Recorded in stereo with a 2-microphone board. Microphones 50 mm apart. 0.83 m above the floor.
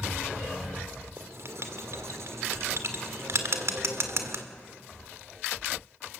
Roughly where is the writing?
Right.